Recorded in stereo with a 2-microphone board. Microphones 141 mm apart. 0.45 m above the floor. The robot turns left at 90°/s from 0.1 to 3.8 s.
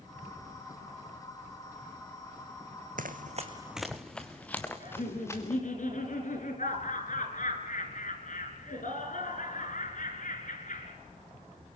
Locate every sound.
3.0 s running footsteps: 70° right (ahead or behind), 1.4 m; by 5.6 s 20° left (ahead or behind), 3.5 m
4.8 s laughter: 65° left (ahead or behind), 6 m